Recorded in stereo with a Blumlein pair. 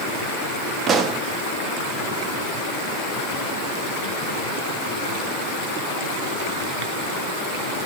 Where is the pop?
25° right, 1.3 m.